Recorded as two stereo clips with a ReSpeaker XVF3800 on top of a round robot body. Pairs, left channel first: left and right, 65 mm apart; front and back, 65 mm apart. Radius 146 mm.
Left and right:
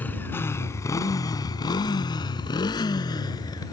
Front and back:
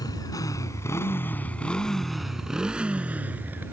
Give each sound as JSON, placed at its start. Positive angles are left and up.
{"t": 0.0, "sound": "a motorcycle", "azimuth_deg": 25}